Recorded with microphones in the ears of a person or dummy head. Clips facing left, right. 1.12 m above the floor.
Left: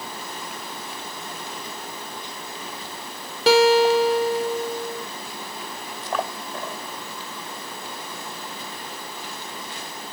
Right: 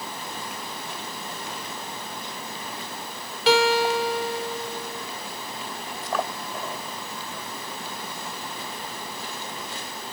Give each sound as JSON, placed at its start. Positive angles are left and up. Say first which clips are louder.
{"t": 3.5, "sound": "a guitar", "louder": "left 5 dB", "side_deg": 40, "distance_m": 0.6}